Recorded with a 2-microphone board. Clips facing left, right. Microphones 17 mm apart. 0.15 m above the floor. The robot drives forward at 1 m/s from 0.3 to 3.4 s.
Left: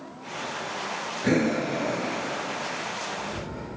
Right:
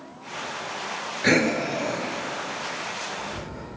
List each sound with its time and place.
1.2 s breathing: 65° right (ahead or behind), 0.6 m; by 3.7 s 15° right (ahead or behind), 2.5 m